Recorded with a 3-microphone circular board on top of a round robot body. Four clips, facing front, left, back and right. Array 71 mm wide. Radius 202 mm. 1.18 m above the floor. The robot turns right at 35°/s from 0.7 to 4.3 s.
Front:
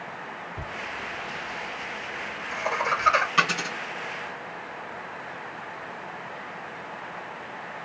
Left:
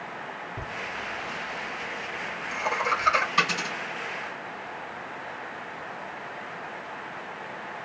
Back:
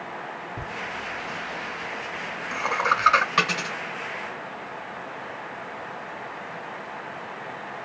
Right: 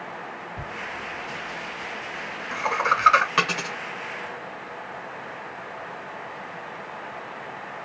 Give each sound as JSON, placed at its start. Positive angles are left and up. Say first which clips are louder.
{"t": 0.6, "sound": "laughter", "louder": "right 1 dB, back 1 dB", "azimuth_deg": 160, "distance_m": 3.0}
{"t": 3.4, "sound": "a dropped coin", "louder": "right 1 dB, even", "azimuth_deg": -115, "distance_m": 1.1}